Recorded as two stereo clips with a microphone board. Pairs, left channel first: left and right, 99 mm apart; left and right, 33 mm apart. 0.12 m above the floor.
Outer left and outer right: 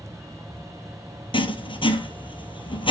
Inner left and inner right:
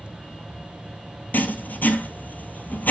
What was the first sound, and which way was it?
Writing, 65° left (ahead or behind).